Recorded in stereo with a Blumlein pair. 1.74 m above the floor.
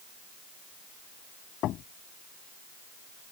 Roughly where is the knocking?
Ahead left.